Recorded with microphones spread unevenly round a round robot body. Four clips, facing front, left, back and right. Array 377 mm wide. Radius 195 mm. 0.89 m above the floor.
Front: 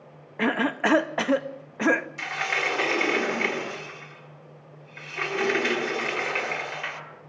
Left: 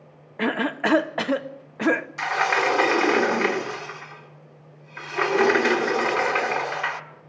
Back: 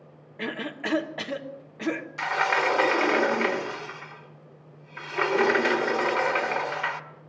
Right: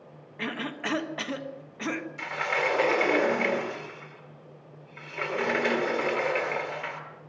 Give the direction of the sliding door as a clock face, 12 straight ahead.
8 o'clock.